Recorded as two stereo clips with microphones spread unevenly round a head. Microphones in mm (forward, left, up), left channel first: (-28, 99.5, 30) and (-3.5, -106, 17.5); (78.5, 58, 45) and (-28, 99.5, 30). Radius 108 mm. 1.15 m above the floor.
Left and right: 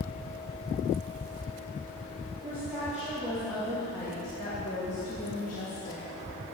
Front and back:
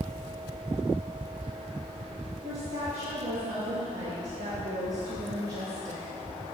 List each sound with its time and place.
2.4 s a woman speaking: 160° right, 2.5 m; by 6.1 s 135° left, 1.8 m